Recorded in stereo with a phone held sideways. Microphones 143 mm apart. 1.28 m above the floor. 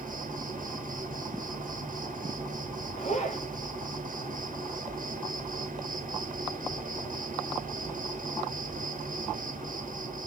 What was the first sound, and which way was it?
An insect, 65° right (ahead or behind).